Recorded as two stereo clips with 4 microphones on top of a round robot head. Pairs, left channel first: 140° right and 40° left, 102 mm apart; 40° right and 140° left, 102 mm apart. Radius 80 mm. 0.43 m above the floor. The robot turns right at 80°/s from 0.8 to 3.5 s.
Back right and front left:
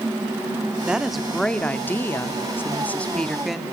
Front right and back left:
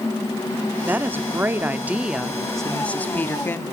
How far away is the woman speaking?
About 0.8 m.